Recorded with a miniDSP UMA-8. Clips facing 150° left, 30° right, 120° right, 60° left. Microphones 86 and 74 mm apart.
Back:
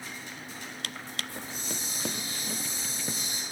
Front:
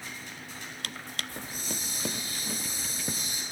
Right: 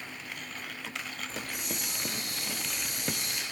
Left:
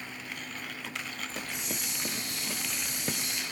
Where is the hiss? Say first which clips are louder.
Even, even; 150° right, 2.5 m.